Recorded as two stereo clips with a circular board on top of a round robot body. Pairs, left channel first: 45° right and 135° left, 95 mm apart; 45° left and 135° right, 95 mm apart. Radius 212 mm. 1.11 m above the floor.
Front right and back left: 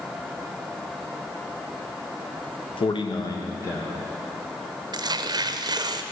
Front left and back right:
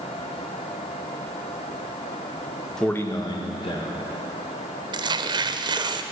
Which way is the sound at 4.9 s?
Straight behind.